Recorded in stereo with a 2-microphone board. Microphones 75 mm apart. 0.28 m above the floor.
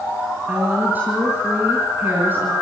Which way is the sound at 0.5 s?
20° right (ahead or behind).